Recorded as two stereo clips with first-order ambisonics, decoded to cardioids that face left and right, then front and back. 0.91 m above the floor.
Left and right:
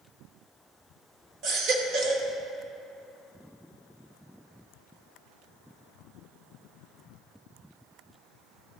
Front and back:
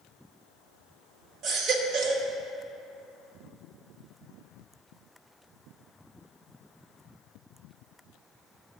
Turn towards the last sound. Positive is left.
turn(degrees=-130)